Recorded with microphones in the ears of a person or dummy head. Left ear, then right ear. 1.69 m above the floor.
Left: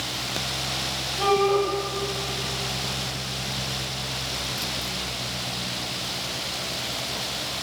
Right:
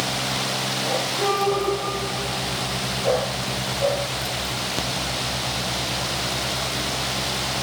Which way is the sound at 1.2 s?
70° left (ahead or behind).